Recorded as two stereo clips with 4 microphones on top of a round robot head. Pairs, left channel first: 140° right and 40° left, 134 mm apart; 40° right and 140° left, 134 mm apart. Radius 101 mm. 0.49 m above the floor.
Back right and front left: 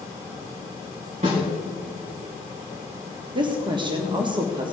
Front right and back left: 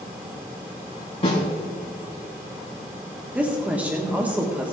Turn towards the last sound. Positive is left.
turn(degrees=65)